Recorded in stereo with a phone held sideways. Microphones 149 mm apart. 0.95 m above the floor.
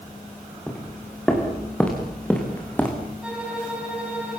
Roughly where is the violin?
Centre.